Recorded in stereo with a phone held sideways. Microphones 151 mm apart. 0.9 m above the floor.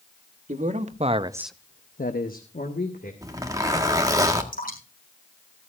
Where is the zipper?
20° right (ahead or behind), 1.5 m.